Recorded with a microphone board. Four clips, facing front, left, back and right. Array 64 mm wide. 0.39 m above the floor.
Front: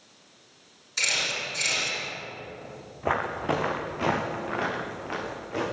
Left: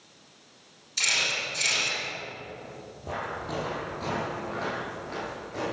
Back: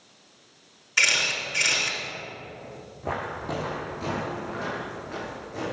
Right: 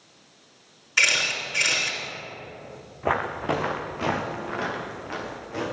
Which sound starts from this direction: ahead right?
Footsteps, at 3.0 s.